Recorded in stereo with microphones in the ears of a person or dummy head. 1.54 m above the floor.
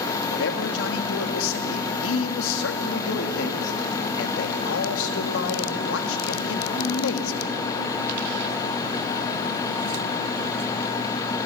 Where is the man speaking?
80° left, 2.5 m.